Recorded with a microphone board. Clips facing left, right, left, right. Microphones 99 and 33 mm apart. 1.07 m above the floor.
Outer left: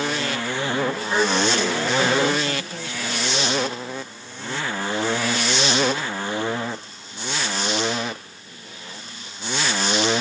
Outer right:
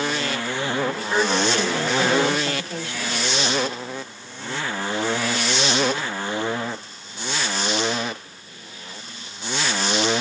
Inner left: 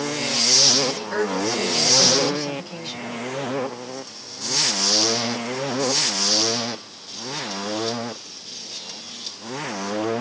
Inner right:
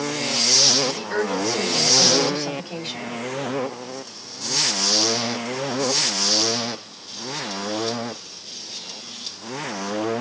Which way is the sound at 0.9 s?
55° right (ahead or behind).